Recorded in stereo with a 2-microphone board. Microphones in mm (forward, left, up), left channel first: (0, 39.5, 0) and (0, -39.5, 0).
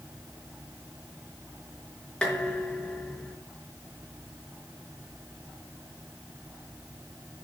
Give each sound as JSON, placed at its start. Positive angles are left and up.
{"t": 2.2, "sound": "dishes clattering", "side_deg": 10, "distance_m": 4.5}